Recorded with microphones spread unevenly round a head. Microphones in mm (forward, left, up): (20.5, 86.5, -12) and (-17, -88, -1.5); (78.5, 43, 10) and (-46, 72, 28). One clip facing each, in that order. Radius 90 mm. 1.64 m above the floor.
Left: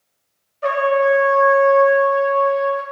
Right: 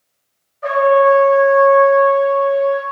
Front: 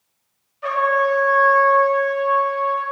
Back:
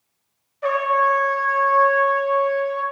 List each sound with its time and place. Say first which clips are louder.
0.6 s a trumpet: right 5 dB, even; 130° left, 1.7 m